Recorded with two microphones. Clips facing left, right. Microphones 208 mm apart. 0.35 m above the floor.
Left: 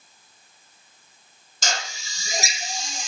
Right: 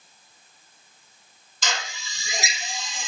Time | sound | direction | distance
1.6 | a drill | 45° left (ahead or behind) | 0.9 m